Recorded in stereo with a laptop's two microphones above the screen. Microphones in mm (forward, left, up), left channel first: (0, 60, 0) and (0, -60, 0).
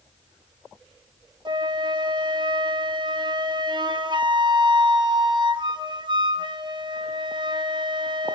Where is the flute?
40° right (ahead or behind), 1.0 m.